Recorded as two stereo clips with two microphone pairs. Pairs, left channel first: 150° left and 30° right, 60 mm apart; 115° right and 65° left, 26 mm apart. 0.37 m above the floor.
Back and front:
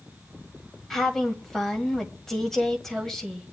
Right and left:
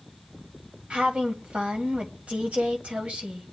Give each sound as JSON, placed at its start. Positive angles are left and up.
{"t": 0.9, "sound": "a woman speaking", "azimuth_deg": 70, "distance_m": 1.7}